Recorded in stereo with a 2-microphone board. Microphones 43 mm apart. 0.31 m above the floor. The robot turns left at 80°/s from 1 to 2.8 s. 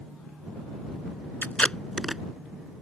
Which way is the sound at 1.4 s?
45° left (ahead or behind).